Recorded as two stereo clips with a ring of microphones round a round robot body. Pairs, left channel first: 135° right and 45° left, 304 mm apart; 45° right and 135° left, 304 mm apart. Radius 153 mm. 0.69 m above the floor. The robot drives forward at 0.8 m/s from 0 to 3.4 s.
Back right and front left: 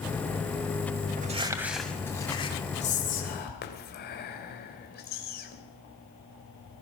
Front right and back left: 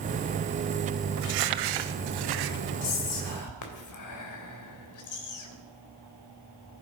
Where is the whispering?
65° right, 3 m; by 5.6 s 75° right, 3 m.